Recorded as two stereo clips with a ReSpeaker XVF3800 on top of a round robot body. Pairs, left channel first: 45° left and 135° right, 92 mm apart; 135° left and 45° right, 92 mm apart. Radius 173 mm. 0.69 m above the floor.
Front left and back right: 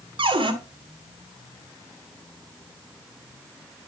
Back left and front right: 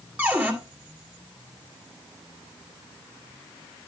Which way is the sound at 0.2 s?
120° right.